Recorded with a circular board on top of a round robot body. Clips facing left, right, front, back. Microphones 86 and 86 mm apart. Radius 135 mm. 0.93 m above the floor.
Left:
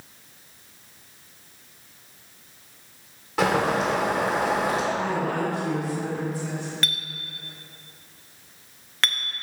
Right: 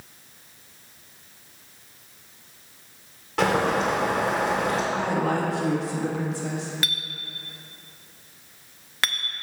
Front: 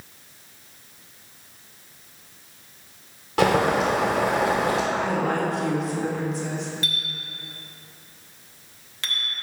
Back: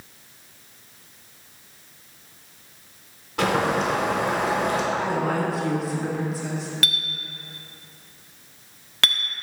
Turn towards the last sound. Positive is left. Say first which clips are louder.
# left 1 dB, back 2 dB
turn(degrees=-175)